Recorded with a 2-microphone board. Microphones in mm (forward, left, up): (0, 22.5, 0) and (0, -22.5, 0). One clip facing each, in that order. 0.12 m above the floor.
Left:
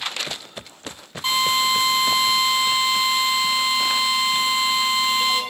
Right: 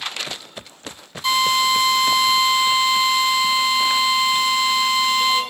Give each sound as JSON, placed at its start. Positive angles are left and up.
{"t": 1.2, "sound": "a drill", "side_deg": 30, "distance_m": 1.3}